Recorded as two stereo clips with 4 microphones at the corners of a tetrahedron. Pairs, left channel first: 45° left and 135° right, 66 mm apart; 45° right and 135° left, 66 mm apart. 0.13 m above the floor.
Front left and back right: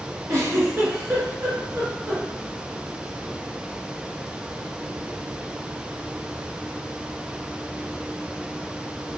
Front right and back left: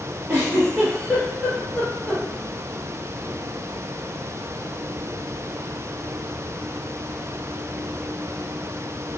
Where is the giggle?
175° right, 2 m.